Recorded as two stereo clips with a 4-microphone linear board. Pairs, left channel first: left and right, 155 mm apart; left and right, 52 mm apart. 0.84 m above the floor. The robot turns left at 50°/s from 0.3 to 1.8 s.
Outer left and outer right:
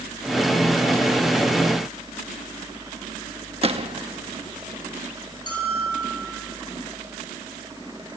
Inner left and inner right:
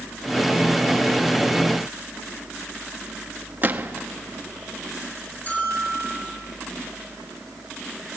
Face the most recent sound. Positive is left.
turn(degrees=30)  # may be behind; listen again after turning